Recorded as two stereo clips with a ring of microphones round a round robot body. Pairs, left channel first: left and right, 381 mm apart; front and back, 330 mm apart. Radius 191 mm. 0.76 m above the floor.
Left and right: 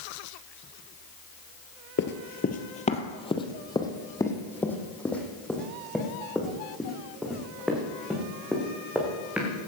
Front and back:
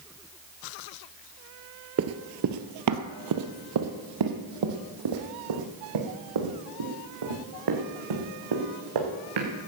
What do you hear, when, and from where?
2.0 s running footsteps: 145° left, 1.1 m; by 9.5 s 175° right, 5 m